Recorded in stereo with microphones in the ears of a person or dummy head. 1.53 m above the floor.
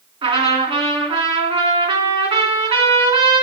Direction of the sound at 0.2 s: 30° right (ahead or behind).